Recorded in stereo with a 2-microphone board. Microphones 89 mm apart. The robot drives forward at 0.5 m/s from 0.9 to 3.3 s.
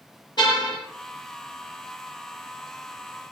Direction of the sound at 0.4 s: 55° left (ahead or behind).